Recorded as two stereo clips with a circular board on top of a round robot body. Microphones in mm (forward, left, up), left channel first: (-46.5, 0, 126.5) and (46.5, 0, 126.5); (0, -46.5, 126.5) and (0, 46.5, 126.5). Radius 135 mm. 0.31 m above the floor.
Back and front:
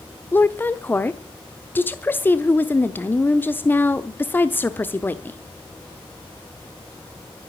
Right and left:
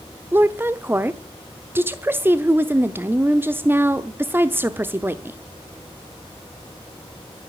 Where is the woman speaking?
135° left, 1.0 m.